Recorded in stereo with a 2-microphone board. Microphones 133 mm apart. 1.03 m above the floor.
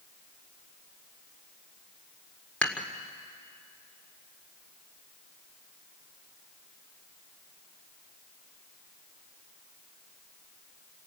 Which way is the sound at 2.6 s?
10° left (ahead or behind).